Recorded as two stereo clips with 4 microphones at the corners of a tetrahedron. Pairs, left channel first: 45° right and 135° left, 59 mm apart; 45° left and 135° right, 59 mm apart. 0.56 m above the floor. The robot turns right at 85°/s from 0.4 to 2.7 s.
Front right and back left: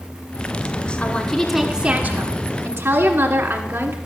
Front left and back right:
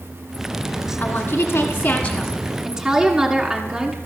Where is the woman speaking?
5° left, 1.5 m; by 4.0 s 150° left, 1.5 m.